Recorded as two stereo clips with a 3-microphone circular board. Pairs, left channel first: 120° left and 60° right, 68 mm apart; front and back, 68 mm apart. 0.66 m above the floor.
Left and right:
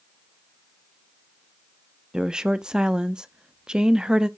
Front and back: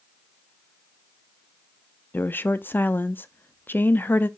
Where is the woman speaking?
5° left, 0.6 m.